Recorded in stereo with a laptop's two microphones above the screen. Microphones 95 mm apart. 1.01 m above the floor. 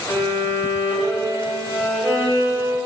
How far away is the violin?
About 3.5 m.